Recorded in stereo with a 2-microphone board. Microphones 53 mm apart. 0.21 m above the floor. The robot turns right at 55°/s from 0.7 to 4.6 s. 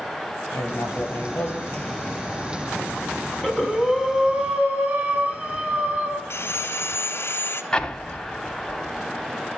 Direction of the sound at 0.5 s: 80° left.